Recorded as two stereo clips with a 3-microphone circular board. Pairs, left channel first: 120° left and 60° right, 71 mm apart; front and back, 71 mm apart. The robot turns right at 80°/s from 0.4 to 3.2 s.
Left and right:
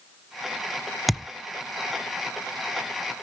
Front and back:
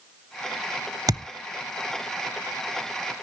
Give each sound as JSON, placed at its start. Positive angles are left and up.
{"t": 1.1, "sound": "a thud", "azimuth_deg": -150, "distance_m": 0.5}